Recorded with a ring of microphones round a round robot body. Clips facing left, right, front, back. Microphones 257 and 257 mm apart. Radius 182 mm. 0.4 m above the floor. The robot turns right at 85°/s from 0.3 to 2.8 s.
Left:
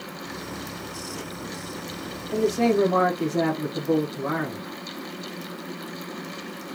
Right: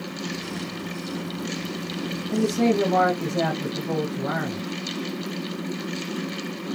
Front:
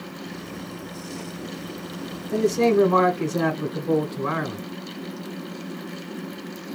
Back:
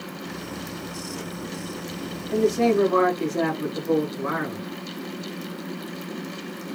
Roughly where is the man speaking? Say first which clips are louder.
Even, front 1 dB; ahead right.